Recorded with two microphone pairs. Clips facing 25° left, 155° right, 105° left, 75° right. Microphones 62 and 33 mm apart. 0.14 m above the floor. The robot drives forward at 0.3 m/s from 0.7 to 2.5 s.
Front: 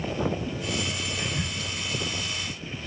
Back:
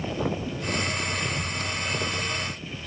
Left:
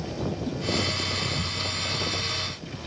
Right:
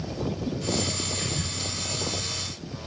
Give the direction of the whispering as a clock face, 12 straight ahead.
1 o'clock.